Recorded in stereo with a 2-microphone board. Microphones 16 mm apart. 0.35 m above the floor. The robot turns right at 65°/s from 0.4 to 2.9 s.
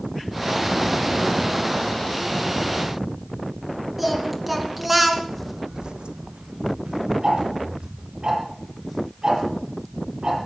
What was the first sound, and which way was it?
Singing, 10° right (ahead or behind).